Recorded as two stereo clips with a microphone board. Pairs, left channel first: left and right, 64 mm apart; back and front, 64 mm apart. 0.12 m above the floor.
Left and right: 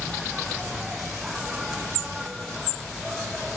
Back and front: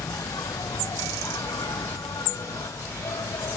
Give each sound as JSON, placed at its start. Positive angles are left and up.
{"t": 0.0, "sound": "an insect", "azimuth_deg": -175}